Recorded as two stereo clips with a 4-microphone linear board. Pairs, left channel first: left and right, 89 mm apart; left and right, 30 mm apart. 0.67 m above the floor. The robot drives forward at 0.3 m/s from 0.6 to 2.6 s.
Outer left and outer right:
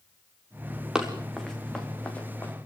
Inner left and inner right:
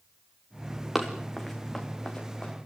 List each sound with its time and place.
0.9 s running footsteps: 10° right (ahead or behind), 3.5 m; by 2.5 s 20° left (ahead or behind), 4.5 m